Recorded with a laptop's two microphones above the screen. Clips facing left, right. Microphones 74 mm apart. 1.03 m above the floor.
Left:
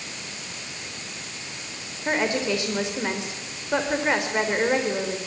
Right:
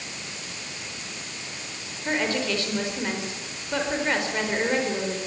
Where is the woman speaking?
20° left (ahead or behind), 4 m.